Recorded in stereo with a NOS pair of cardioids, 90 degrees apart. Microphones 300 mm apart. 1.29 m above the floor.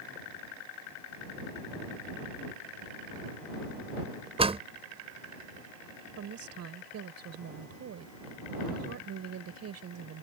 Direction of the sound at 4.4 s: 20° right.